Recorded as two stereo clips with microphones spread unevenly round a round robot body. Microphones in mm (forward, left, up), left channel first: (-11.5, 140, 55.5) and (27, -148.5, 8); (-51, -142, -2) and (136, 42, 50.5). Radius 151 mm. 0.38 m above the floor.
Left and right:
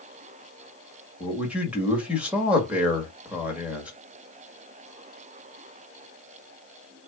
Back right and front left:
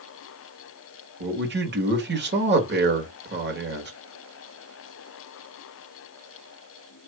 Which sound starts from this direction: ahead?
A man speaking, at 1.2 s.